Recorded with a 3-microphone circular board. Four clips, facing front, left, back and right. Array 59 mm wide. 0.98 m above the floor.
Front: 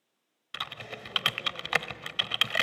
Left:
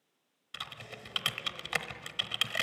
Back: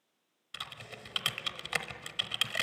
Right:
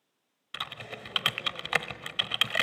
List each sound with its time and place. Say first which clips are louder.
0.5 s typing on a keyboard: right 5 dB, front 6 dB; 35° right, 0.9 m